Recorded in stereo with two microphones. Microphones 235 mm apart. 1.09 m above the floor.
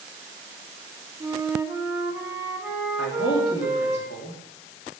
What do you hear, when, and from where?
1.2 s a flute: 10° right (ahead or behind), 1.0 m
3.0 s a man speaking: 45° left (ahead or behind), 2.5 m